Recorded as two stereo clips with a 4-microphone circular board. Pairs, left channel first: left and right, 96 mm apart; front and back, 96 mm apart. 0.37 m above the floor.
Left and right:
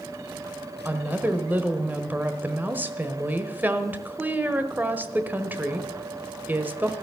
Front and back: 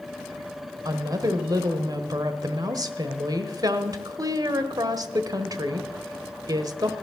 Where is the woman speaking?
155° right, 1.2 m.